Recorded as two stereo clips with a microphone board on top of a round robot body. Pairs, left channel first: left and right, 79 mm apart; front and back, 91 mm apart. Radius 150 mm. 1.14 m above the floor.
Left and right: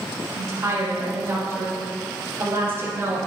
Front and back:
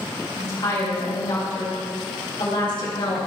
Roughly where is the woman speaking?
Ahead right.